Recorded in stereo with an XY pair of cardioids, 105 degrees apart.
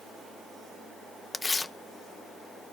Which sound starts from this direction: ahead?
Tearing paper, at 1.3 s.